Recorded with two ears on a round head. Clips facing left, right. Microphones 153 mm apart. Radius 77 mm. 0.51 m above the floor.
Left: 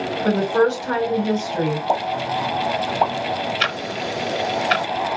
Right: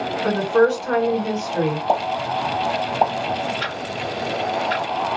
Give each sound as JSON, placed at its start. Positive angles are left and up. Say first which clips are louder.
{"t": 0.2, "sound": "a woman speaking", "louder": "right 1 dB", "side_deg": 10, "distance_m": 2.0}
{"t": 1.9, "sound": "a pop", "louder": "right 1 dB", "side_deg": -10, "distance_m": 0.8}
{"t": 3.6, "sound": "ticking", "louder": "left 1 dB", "side_deg": 80, "distance_m": 0.5}